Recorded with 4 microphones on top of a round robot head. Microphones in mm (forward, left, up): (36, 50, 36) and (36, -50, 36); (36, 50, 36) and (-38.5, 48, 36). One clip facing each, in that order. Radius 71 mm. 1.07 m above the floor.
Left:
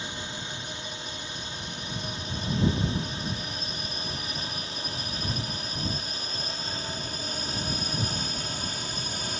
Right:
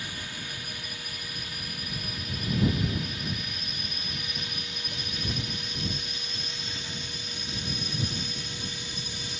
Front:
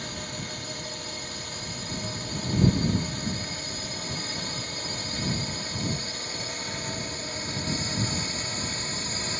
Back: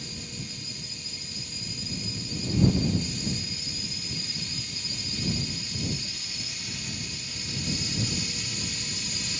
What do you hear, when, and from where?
0.0 s a drone: 25° left; by 9.4 s 45° left